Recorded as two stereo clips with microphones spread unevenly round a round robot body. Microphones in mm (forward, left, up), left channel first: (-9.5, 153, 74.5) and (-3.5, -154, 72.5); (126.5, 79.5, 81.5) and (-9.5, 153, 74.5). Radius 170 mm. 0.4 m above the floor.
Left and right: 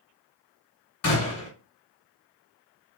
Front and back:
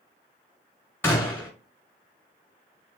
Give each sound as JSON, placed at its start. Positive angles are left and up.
{"t": 1.0, "sound": "a gunshot", "azimuth_deg": 50, "distance_m": 2.0}